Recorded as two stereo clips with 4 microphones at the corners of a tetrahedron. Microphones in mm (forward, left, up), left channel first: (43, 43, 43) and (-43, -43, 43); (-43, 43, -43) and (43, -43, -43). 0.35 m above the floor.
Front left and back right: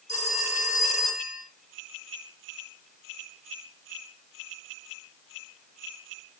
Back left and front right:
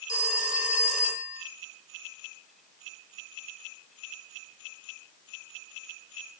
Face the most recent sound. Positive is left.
turn(degrees=35)